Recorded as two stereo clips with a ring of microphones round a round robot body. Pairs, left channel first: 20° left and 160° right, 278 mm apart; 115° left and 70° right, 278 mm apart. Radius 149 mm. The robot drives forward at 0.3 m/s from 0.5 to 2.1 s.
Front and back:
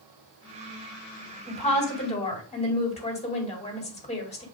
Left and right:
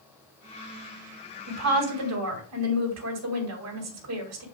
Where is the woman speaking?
40° right, 3 m; by 4.5 s 45° right, 2.5 m.